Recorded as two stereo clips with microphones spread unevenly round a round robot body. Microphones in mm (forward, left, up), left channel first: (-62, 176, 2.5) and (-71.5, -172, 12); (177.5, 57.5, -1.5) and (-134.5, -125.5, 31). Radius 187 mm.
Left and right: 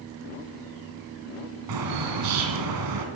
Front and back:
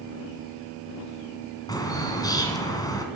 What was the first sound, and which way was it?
A bird, 50° right.